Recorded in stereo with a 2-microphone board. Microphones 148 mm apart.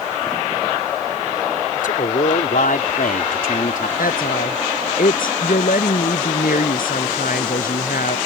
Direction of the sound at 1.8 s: 85° left.